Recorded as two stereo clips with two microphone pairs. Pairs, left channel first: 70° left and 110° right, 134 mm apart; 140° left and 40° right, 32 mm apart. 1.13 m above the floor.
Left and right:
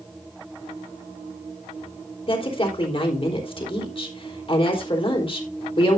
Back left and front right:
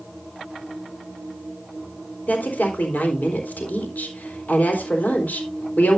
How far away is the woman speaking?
About 3.5 m.